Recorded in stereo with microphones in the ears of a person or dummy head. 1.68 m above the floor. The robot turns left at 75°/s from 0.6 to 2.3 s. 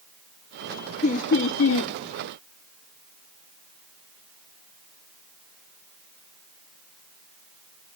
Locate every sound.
1.0 s laughter: 145° left, 0.5 m; by 1.9 s 80° left, 0.5 m